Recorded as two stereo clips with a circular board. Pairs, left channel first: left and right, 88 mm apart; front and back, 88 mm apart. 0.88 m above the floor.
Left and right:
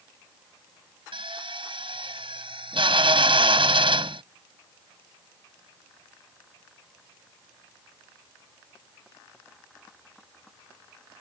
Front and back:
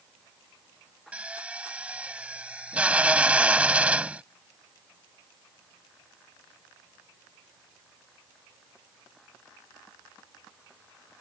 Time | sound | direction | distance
1.1 | a drill | 105° right | ?